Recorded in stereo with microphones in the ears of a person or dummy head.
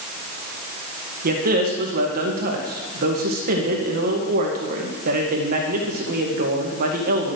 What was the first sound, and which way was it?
A man speaking, 50° right (ahead or behind).